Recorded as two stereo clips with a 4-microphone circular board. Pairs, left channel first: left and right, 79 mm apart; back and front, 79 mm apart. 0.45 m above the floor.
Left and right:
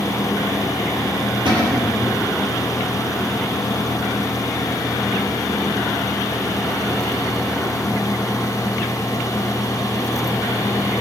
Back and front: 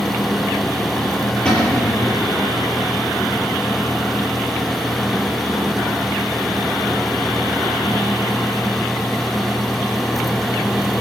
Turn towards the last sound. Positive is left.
turn(degrees=-100)